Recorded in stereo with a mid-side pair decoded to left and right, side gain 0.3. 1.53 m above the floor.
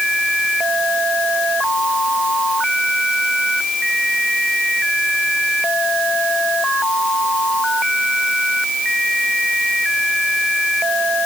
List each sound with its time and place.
Only background noise.